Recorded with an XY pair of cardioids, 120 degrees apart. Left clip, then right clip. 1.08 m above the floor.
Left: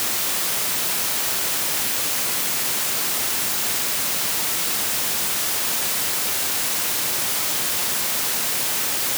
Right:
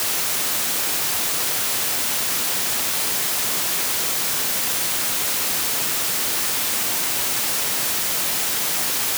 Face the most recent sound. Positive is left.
No sound to turn to.